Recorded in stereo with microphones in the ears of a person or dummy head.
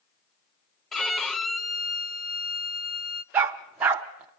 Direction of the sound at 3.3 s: 10° right (ahead or behind).